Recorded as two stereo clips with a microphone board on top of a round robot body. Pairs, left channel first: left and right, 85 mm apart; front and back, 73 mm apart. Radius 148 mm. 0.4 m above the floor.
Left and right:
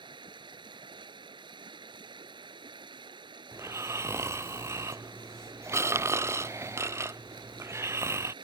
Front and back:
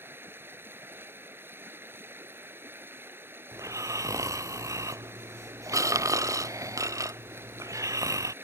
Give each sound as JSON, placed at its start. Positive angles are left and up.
{"t": 0.0, "sound": "running water", "azimuth_deg": -120}
{"t": 3.5, "sound": "snoring", "azimuth_deg": -140}